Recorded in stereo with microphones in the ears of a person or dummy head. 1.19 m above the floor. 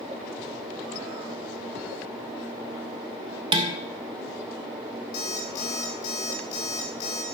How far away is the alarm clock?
About 1.1 m.